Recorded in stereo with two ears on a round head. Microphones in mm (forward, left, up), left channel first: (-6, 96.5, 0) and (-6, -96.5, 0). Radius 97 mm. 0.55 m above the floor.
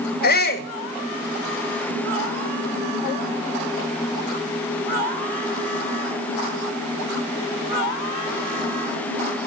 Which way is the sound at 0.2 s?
45° left (ahead or behind).